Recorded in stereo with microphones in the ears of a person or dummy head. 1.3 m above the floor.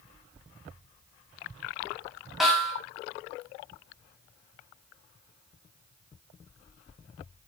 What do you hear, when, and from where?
2.4 s a snare drum: 5° right (ahead or behind), 0.6 m